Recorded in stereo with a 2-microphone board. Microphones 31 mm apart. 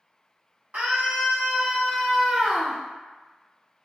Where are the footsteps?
No footsteps in this recording.